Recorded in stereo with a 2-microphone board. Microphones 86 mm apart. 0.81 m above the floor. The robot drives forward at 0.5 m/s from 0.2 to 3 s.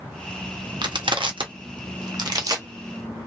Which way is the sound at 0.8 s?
60° right (ahead or behind).